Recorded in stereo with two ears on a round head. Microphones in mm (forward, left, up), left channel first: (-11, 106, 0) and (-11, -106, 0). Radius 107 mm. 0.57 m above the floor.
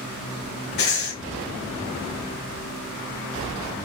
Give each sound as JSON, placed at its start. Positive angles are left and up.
{"t": 0.8, "sound": "breathing", "side_deg": 45, "distance_m": 1.4}